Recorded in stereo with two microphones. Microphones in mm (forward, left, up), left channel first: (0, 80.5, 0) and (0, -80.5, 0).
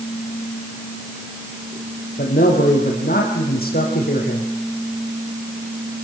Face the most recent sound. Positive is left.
turn(degrees=70)  # may be behind; listen again after turning